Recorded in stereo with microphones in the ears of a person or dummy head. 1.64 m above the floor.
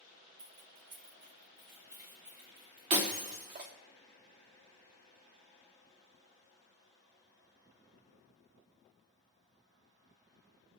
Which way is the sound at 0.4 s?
50° right (ahead or behind).